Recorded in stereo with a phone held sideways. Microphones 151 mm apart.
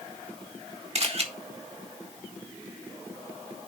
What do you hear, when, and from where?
0.9 s a camera shutter: 50° right (ahead or behind), 1.6 m